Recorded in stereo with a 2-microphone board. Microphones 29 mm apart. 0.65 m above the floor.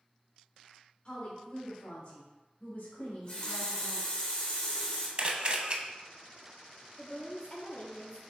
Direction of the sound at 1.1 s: 30° left (ahead or behind).